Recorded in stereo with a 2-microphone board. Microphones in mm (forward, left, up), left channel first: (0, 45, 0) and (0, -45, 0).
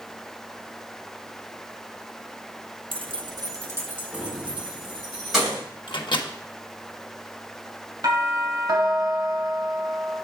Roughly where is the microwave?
Left.